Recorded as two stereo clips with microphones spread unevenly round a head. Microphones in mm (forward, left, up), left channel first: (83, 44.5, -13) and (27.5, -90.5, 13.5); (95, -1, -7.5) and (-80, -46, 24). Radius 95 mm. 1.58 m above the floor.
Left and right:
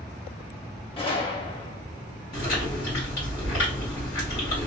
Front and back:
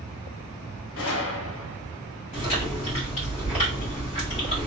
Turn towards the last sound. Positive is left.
turn(degrees=80)